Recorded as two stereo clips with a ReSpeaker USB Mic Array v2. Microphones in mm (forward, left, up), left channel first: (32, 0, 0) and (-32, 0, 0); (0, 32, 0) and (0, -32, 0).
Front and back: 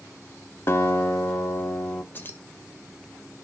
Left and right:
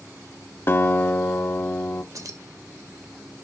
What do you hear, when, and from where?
0.7 s a guitar: 40° left, 1.0 m
2.1 s keys jangling: 60° right, 1.2 m